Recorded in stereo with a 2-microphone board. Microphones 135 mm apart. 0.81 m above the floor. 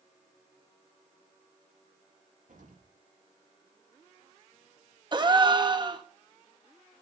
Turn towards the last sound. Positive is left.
turn(degrees=-35)  # may be behind; listen again after turning